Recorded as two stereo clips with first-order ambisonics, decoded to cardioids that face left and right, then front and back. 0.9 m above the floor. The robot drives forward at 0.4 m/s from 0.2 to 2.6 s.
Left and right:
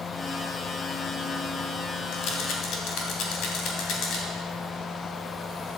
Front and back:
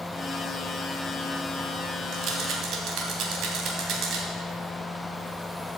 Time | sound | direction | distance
2.1 | a rattle | 130° left | 2.5 m